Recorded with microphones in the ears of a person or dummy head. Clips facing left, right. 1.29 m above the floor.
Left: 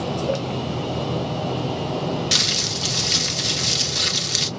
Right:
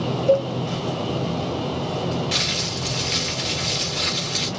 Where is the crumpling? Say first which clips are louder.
Even; 60° left (ahead or behind), 1.4 m.